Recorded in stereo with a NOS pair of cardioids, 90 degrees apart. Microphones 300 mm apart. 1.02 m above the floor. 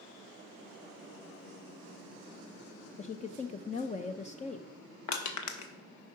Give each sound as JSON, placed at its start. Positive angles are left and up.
{"t": 3.0, "sound": "a woman speaking", "azimuth_deg": 25, "distance_m": 0.5}
{"t": 5.1, "sound": "crushing", "azimuth_deg": 70, "distance_m": 1.1}